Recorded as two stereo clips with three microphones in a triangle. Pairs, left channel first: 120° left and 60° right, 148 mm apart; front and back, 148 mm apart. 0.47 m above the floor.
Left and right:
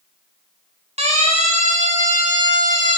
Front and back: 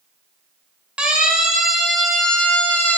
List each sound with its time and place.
1.0 s a siren: 100° right, 5 m; by 3.0 s 75° right, 4.5 m